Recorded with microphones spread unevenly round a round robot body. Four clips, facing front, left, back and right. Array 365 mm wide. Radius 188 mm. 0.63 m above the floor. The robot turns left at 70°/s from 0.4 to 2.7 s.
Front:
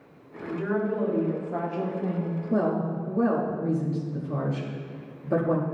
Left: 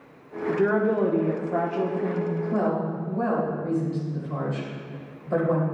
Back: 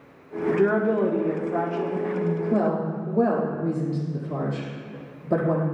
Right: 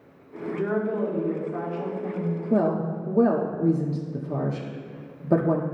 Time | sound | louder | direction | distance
0.5 | a woman speaking | left 4 dB, back 7 dB | 165° left | 1.3 m
2.5 | a woman speaking | right 4 dB, front 1 dB | 95° right | 1.4 m